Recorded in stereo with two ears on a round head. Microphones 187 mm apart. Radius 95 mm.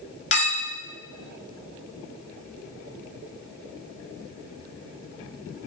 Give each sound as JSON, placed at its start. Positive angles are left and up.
{"t": 0.3, "sound": "a clink", "side_deg": 30, "distance_m": 1.5}